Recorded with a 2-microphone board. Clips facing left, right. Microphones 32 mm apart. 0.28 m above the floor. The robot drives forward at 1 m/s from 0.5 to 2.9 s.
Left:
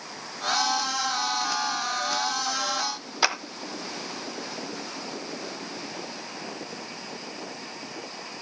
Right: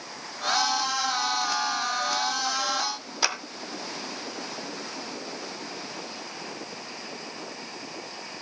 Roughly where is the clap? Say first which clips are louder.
Left 3 dB; centre.